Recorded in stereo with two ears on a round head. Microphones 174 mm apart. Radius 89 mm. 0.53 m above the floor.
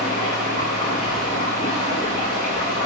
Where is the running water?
35° left (ahead or behind), 10 m.